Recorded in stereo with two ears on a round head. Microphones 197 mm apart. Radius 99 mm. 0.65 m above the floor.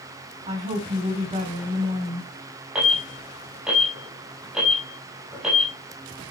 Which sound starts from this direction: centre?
An alarm, at 2.8 s.